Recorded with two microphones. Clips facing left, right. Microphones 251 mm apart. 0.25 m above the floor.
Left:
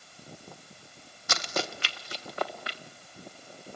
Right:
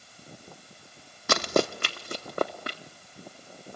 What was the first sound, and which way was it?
Running footsteps, 65° right (ahead or behind).